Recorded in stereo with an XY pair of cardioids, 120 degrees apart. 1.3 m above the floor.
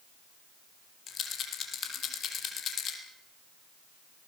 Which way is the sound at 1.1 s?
50° left.